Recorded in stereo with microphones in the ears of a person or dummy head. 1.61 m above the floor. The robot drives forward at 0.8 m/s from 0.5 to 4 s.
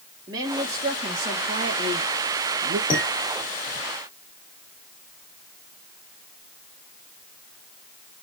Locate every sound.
0.3 s a woman speaking: 20° right (ahead or behind), 2.5 m; by 2.8 s 55° right (ahead or behind), 1.2 m
2.9 s dishes clattering: 20° left (ahead or behind), 5 m